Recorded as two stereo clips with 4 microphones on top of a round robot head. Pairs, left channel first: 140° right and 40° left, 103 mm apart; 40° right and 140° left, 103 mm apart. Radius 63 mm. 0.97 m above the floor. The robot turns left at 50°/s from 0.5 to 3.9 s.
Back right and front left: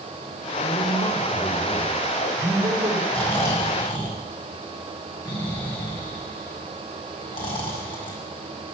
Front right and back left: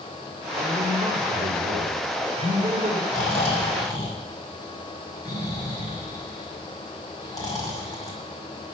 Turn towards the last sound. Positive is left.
turn(degrees=-95)